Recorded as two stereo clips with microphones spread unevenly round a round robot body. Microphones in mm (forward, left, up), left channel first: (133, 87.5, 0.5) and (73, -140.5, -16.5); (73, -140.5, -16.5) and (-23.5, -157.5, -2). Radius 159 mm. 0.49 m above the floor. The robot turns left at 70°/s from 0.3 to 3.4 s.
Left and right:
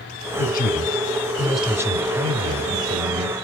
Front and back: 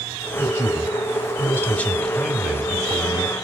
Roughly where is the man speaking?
Ahead left.